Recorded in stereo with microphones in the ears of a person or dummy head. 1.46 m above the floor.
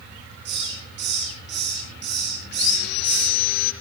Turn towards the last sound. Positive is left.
turn(degrees=60)  # may be behind; listen again after turning